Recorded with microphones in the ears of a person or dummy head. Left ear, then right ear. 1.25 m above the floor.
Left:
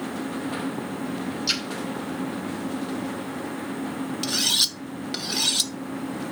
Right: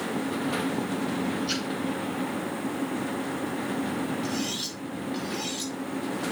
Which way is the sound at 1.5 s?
50° left (ahead or behind).